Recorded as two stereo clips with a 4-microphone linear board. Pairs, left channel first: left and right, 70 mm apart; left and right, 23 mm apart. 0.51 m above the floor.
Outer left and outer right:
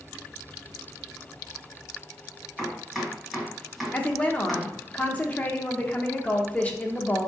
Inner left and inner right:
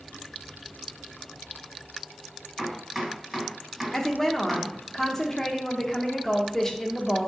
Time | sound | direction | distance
2.6 | chopping | centre (ahead or behind) | 1.8 m
3.9 | a woman speaking | 20° left (ahead or behind) | 0.7 m